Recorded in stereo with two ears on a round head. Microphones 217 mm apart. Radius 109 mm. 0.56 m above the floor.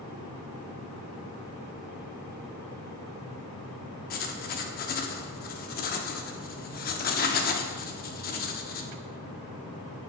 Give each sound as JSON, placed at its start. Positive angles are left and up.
{"t": 4.1, "sound": "writing", "side_deg": 35, "distance_m": 0.7}